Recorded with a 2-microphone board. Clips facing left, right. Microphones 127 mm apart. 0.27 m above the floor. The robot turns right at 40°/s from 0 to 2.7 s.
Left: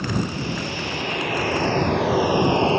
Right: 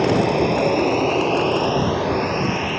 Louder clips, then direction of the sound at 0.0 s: Right 9 dB; 80° right.